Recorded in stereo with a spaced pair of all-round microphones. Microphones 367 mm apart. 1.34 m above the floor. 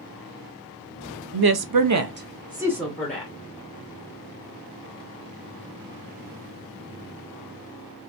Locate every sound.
1.3 s a woman speaking: 75° right (ahead or behind), 0.6 m; by 3.3 s 5° left (ahead or behind), 1.3 m